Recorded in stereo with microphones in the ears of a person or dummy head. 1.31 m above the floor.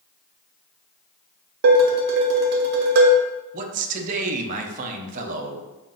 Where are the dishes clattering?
55° right (ahead or behind), 0.8 m.